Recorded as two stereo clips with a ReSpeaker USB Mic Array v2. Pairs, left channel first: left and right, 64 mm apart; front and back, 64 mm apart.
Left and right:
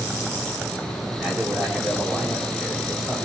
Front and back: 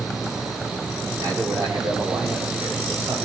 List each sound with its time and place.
1.2 s a man speaking: 170° right, 5.5 m